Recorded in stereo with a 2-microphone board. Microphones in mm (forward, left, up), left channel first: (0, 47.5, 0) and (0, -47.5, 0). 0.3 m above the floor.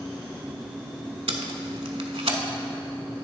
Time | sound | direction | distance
1.3 | tape being pulled | 85° right | 0.6 m